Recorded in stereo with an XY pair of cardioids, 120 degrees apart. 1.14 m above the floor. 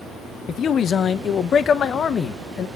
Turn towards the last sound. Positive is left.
turn(degrees=45)